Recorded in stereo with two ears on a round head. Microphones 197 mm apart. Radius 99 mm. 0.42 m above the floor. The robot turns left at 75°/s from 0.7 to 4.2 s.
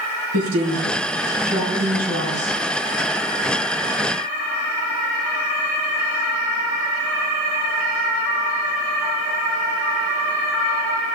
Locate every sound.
0.3 s a woman speaking: 85° right, 5 m; by 2.6 s 130° left, 5 m